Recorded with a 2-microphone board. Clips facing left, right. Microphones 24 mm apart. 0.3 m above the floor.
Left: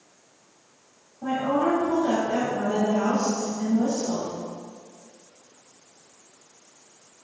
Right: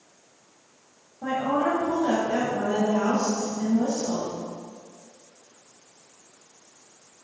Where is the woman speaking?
15° right (ahead or behind), 1.9 m.